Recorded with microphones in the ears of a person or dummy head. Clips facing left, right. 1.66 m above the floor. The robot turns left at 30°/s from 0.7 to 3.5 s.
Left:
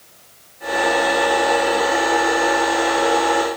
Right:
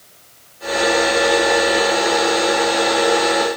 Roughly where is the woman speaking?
No woman speaking in this recording.